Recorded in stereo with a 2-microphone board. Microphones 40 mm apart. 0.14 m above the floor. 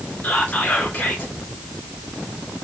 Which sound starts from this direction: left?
Whispering, at 0.2 s.